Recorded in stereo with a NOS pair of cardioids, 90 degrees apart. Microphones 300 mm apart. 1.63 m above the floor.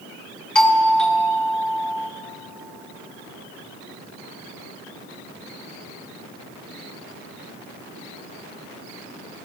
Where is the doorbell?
5° left, 1.4 m.